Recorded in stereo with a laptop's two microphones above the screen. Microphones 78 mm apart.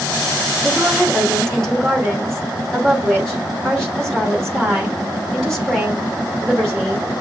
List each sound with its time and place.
0.6 s a woman speaking: 5° left (ahead or behind), 1.8 m